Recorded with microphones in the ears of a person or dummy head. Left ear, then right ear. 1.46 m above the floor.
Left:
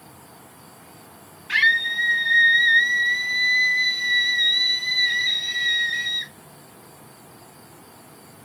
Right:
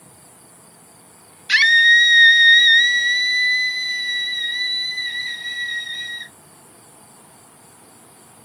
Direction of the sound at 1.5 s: 80° right.